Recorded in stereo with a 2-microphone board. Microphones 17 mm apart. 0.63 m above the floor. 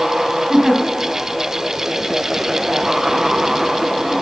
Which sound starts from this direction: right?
A giggle, at 0.5 s.